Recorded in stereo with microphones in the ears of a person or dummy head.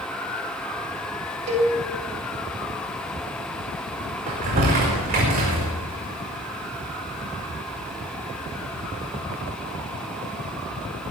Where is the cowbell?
40° right (ahead or behind), 5 m.